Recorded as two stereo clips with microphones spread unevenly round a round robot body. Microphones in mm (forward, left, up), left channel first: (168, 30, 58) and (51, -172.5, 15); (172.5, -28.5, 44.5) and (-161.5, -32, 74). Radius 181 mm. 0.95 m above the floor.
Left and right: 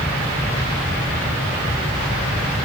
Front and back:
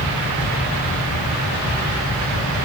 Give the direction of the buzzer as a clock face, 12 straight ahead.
I don't hear a buzzer.